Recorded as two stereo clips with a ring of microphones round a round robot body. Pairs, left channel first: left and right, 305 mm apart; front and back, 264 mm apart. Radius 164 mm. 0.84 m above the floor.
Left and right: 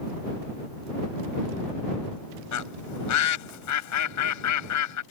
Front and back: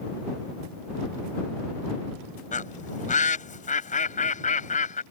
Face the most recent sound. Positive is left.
turn(degrees=60)